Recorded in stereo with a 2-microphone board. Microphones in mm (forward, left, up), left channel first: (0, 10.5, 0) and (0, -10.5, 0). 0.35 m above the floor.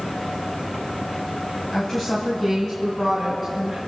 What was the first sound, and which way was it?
A woman speaking, 20° left (ahead or behind).